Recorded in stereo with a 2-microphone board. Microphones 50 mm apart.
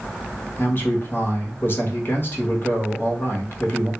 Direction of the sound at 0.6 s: 45° left (ahead or behind).